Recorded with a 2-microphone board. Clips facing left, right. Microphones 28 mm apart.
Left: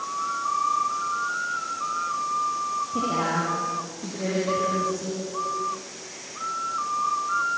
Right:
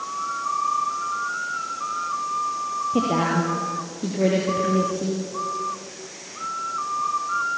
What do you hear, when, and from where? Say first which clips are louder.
2.9 s a woman speaking: right 5 dB; 35° right (ahead or behind), 5 m